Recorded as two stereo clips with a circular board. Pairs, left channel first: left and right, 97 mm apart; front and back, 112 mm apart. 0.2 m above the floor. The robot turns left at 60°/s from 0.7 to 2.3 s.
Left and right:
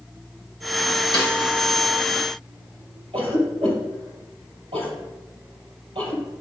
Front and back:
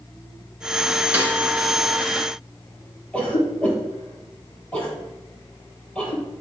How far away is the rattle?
I don't hear a rattle.